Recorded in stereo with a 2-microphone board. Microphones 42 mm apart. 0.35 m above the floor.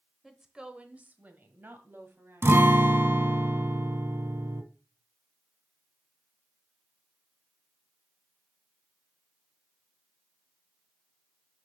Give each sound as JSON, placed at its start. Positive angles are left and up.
{"t": 0.2, "sound": "a woman speaking", "side_deg": -5, "distance_m": 1.0}
{"t": 2.4, "sound": "a guitar", "side_deg": -65, "distance_m": 0.8}